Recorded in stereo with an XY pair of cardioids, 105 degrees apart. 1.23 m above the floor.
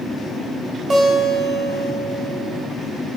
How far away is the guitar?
About 1.7 m.